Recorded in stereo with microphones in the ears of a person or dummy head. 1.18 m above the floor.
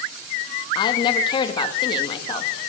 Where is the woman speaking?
25° left (ahead or behind), 1.9 m.